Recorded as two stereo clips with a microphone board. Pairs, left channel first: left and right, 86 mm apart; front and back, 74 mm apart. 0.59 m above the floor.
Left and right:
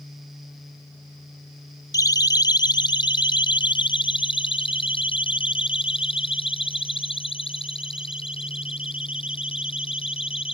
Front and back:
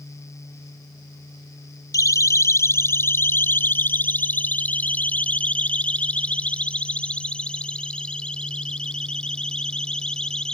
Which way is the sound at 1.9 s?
40° left.